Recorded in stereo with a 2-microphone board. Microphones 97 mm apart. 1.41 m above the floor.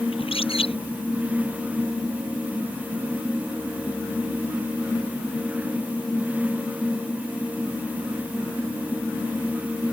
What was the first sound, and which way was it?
A bird, 85° left.